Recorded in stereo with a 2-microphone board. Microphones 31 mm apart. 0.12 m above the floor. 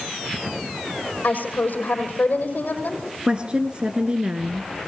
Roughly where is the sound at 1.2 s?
Left.